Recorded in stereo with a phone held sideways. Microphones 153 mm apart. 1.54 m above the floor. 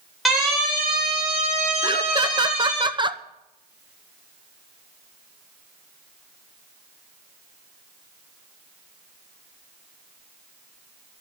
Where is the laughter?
30° right (ahead or behind), 1.0 m.